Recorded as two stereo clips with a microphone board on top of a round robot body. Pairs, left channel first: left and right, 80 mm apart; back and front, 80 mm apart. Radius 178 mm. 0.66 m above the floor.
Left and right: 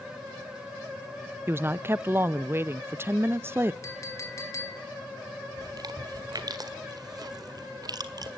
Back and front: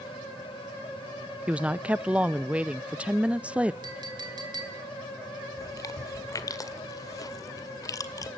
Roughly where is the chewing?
Behind right.